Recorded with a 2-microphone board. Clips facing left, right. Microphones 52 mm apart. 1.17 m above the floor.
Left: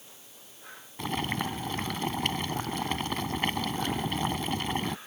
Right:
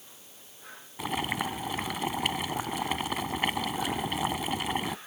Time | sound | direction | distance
1.0 | boiling | 10° right (ahead or behind) | ?